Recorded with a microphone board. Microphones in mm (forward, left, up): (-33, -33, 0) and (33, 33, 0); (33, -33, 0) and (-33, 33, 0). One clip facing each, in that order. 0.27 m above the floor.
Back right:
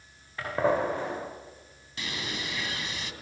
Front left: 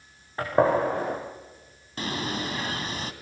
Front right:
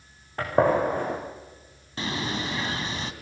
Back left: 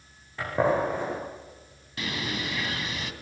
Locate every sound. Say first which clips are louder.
0.4 s a gunshot: front left 4 dB, front right 3 dB; 10° right, 9.5 m
2.0 s a bird: front left 6 dB, front right 3 dB; 5° left, 2 m